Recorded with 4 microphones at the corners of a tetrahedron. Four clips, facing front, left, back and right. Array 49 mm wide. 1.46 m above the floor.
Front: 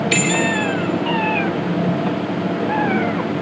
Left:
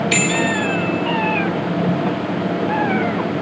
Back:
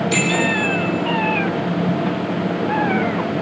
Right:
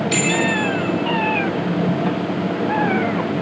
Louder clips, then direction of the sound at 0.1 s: Even, even; 40° left.